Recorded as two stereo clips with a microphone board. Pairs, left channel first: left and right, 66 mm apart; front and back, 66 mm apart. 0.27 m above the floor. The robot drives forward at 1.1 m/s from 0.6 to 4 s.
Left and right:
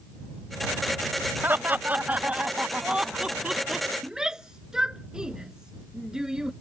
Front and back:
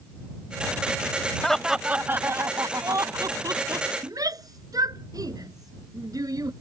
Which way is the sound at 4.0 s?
170° right.